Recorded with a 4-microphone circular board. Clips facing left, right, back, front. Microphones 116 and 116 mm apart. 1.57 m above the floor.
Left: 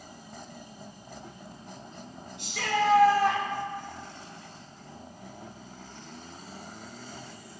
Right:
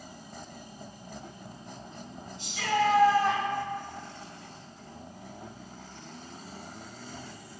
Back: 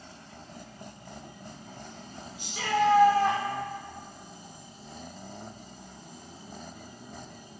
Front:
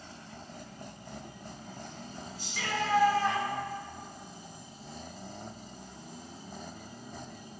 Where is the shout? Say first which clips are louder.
Right 1 dB, back 8 dB; 110° left, 6 m; by 3.4 s 105° left, 5.5 m.